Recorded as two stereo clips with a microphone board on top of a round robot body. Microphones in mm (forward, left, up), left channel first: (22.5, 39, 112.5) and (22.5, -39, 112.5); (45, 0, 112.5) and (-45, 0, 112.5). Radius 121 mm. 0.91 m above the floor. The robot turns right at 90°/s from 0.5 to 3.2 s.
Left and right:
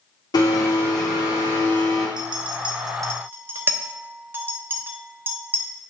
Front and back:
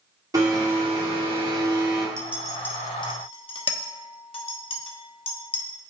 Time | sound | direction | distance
0.3 | a blender | 125° left | 3 m
2.2 | a clink | 120° right | 1.1 m